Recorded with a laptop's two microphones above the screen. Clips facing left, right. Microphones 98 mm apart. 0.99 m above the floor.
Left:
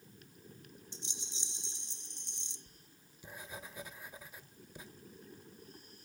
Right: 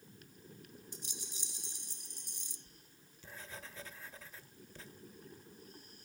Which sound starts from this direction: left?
A rattle, at 0.9 s.